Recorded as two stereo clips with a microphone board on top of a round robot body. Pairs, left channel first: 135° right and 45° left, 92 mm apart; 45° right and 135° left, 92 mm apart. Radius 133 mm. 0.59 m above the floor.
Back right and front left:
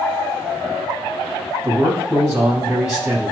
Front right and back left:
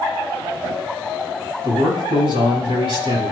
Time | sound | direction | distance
1.6 | a man speaking | 125° left | 5 m